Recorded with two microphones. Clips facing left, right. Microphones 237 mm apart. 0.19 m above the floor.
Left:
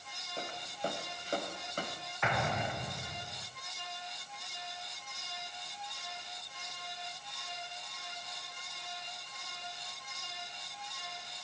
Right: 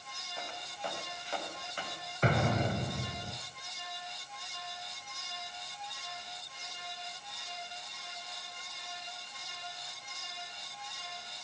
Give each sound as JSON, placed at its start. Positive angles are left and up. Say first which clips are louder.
{"t": 0.4, "sound": "footsteps", "louder": "left 4 dB", "side_deg": 40, "distance_m": 8.5}
{"t": 2.2, "sound": "an explosion", "louder": "right 6 dB", "side_deg": -40, "distance_m": 4.0}